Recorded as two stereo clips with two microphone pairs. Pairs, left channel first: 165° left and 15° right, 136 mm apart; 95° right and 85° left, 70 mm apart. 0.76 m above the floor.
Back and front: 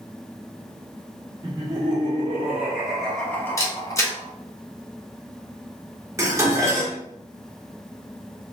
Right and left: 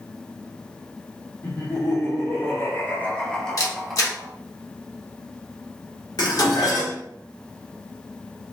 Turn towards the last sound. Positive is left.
turn(degrees=-85)